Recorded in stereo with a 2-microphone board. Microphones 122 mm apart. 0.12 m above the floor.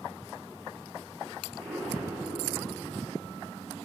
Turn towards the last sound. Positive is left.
turn(degrees=-25)  # may be behind; listen again after turning